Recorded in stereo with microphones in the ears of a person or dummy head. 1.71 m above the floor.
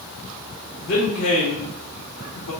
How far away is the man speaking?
About 1.4 m.